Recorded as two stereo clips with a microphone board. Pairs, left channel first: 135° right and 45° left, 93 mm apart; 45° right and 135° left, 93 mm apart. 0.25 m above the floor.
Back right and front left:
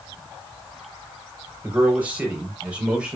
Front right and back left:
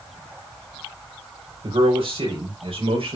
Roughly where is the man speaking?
Behind left.